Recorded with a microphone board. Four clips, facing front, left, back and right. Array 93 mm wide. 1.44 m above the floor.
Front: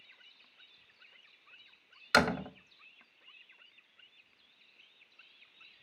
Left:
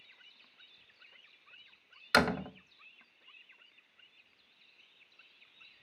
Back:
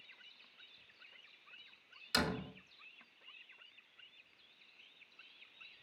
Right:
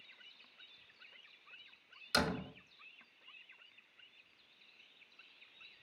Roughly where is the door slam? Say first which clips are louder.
Left 7 dB, front 10 dB; ahead left.